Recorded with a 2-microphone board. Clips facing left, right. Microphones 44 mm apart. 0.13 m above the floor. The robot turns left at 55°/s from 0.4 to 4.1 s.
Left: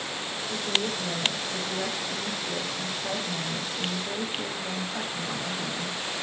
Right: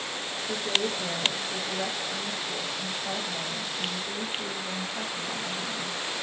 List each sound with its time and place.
0.5 s a woman speaking: 110° right, 4.5 m; by 6.0 s 50° left, 4.5 m